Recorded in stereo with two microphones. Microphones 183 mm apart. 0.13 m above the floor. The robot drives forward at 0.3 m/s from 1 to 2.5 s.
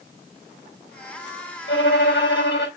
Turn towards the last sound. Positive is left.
turn(degrees=85)